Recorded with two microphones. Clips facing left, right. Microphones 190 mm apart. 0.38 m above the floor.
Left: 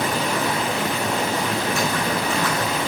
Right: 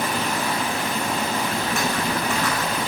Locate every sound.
0.0 s running water: 80° left, 2.5 m
1.6 s typing on a keyboard: 55° right (ahead or behind), 4 m